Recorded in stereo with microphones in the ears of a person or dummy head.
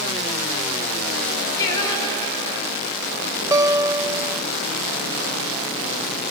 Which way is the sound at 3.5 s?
20° right (ahead or behind).